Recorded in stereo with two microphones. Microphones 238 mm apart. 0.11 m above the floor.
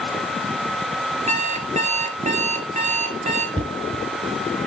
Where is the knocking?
20° right (ahead or behind), 1.0 m.